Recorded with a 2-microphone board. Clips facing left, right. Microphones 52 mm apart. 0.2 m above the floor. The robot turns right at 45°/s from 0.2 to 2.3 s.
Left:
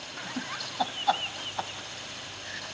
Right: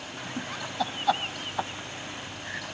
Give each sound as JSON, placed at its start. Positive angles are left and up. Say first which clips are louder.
{"t": 0.2, "sound": "laughter", "louder": "even", "side_deg": 15, "distance_m": 1.0}